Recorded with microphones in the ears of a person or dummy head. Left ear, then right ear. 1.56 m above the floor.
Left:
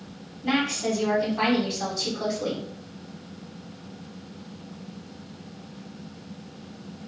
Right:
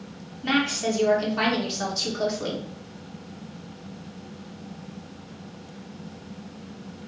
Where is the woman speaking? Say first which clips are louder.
Right 1 dB; 45° right (ahead or behind), 1.5 m.